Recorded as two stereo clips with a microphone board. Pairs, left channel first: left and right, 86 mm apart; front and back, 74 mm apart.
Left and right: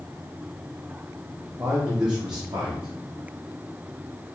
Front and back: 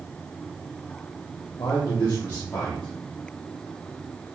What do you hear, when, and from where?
1.6 s a man speaking: 40° right, 1.1 m; by 4.3 s 110° right, 1.4 m